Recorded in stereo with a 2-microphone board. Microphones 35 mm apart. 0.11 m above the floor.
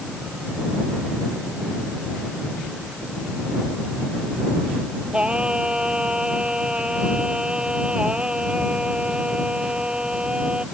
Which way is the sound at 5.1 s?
25° right (ahead or behind).